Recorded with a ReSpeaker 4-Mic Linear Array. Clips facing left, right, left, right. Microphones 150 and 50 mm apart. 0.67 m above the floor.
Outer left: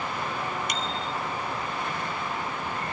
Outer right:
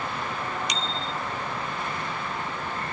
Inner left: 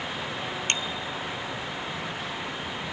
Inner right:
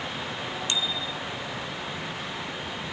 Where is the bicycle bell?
50° left (ahead or behind).